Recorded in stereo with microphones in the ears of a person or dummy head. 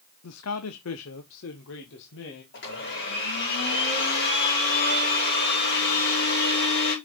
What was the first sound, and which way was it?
A man speaking, 80° left.